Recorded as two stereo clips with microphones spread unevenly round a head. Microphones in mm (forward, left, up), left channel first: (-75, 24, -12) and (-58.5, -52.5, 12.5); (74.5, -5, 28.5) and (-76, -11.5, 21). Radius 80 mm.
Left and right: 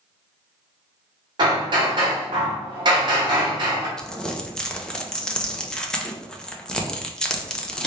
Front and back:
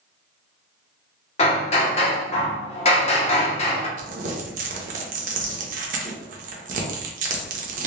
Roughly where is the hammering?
Ahead right.